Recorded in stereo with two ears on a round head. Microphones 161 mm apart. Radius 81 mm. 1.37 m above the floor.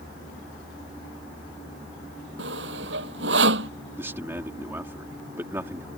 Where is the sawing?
65° right (ahead or behind).